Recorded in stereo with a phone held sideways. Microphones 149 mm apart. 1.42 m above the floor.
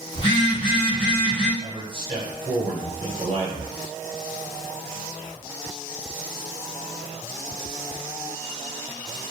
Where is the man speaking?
35° right (ahead or behind), 1.2 m.